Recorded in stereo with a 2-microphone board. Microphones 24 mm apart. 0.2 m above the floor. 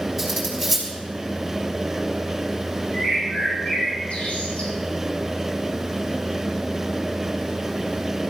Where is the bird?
65° left (ahead or behind), 6.5 m.